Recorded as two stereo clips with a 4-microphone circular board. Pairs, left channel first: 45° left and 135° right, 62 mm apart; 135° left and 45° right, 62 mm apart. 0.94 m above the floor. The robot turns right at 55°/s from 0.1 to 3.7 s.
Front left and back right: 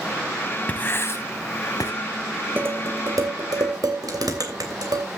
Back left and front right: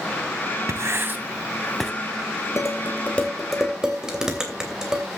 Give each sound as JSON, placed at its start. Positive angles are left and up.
{"t": 0.7, "sound": "writing", "azimuth_deg": -15, "distance_m": 1.6}
{"t": 2.6, "sound": "dishes clattering", "azimuth_deg": 175, "distance_m": 3.0}